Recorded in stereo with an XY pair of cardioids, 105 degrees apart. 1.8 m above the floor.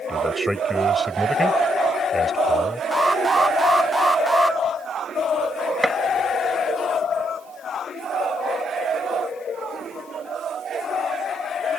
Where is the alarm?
15° right.